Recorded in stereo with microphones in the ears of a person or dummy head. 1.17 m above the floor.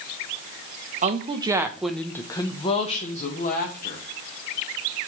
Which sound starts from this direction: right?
A woman speaking, at 1.0 s.